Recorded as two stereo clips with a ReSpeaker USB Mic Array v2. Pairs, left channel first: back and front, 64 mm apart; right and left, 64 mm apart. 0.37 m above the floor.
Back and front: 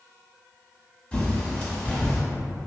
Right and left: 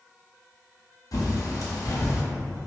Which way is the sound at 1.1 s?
110° right.